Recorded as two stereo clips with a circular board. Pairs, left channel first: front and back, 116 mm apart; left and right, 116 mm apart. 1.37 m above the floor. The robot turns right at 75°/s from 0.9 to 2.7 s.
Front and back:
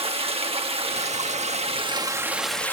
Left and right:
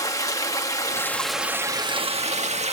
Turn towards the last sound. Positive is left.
turn(degrees=-75)